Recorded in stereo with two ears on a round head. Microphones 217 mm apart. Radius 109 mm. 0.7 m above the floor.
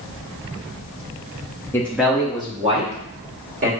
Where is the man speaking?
10° left (ahead or behind), 0.6 m; by 3.7 s 35° right (ahead or behind), 1.6 m.